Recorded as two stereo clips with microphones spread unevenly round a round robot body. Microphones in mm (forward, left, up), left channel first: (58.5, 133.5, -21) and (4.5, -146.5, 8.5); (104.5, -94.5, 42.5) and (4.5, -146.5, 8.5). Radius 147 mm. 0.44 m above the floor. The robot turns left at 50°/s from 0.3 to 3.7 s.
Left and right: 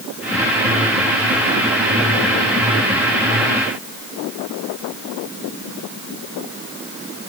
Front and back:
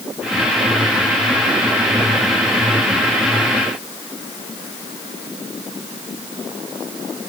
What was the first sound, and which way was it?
Only background noise.